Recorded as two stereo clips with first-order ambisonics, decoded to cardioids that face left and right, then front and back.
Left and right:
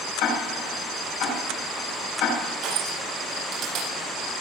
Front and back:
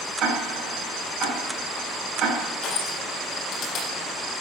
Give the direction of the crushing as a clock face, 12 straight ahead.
2 o'clock.